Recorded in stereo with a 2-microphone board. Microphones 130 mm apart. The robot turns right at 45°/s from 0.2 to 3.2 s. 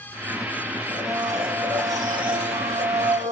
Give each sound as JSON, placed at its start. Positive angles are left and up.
{"t": 0.9, "sound": "a blender", "azimuth_deg": 170, "distance_m": 2.0}